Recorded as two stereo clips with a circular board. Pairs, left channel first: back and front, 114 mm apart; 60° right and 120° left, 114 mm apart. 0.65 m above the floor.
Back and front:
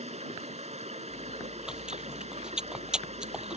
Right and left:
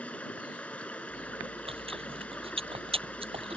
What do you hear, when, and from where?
0.0 s running water: 20° left
1.1 s chewing: 85° left